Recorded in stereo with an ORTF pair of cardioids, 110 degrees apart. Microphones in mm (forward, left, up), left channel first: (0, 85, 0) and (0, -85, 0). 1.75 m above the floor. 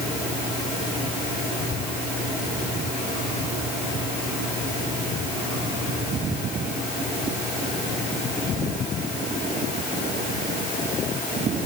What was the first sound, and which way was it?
Only background noise.